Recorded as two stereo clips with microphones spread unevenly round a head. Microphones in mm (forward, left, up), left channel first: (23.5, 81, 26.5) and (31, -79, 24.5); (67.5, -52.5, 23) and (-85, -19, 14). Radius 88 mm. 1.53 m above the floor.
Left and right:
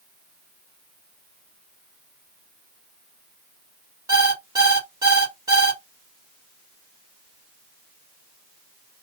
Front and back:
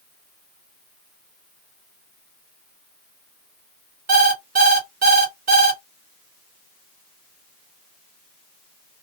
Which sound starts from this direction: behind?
An alarm clock, at 4.1 s.